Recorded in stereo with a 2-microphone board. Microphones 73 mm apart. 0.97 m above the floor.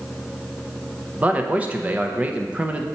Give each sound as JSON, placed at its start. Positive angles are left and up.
{"t": 1.2, "sound": "a man speaking", "side_deg": -20, "distance_m": 0.6}